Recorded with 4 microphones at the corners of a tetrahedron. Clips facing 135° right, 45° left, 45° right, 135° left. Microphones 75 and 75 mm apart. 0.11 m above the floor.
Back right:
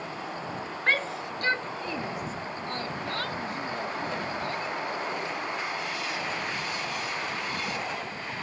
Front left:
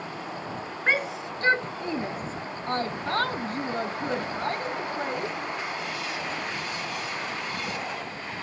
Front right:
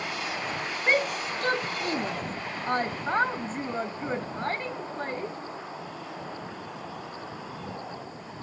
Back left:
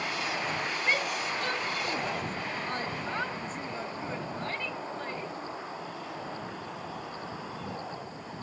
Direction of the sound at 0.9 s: 30° right.